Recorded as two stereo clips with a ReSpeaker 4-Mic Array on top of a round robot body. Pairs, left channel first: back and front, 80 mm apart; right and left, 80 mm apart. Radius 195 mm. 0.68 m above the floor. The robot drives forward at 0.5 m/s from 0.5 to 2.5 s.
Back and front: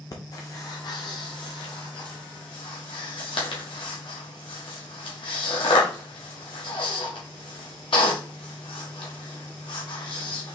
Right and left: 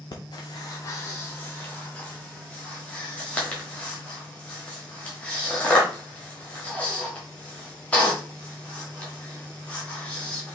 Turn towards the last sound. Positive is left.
turn(degrees=-165)